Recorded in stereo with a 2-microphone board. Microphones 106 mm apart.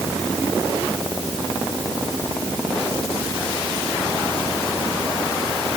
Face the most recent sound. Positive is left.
No sound to turn to.